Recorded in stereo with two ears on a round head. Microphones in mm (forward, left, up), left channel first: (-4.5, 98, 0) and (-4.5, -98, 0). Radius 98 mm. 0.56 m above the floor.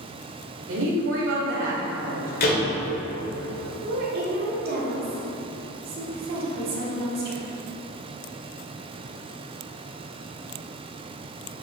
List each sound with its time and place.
0.7 s a woman speaking: 60° right (ahead or behind), 1.9 m; by 2.3 s 55° right (ahead or behind), 1.8 m
2.4 s a door slam: 45° left (ahead or behind), 1.8 m
3.8 s a woman speaking: 45° right (ahead or behind), 1.8 m